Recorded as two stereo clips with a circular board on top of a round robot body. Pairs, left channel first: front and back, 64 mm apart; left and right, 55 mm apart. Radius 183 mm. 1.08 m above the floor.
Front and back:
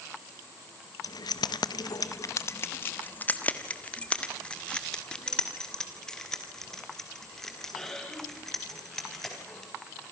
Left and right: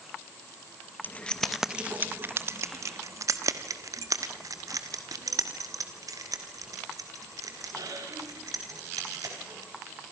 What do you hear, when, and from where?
1.0 s keys jangling: 30° left, 0.7 m; by 9.7 s 85° right, 6 m